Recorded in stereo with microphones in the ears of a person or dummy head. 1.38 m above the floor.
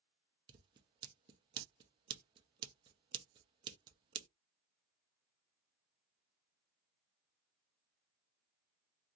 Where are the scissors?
30° right (ahead or behind), 0.6 m.